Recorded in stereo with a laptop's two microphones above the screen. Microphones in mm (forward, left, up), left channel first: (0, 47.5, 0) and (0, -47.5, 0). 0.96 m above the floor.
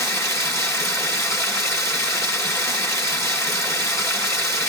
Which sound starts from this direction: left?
Running water, at 0.0 s.